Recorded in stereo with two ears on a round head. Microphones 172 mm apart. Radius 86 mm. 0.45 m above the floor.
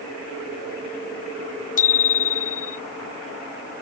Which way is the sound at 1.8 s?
45° left (ahead or behind).